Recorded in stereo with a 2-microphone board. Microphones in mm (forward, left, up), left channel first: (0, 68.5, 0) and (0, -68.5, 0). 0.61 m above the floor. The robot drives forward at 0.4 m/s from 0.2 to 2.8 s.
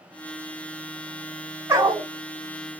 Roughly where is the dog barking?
Centre.